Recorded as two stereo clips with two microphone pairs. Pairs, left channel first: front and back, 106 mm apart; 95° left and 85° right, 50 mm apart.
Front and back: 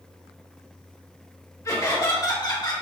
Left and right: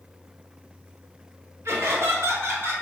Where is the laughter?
60° right, 2 m; by 2.7 s 45° right, 1.7 m.